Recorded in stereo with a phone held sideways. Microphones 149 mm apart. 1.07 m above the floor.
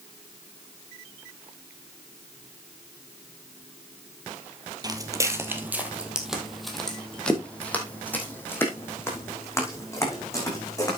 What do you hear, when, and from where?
4.8 s footsteps: 25° right (ahead or behind), 1.9 m; by 11.0 s 25° left (ahead or behind), 5.5 m